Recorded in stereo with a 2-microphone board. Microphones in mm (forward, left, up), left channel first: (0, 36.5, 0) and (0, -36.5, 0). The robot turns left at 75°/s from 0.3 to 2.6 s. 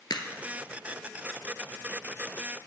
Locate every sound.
0.1 s a crack: 85° left, 1.1 m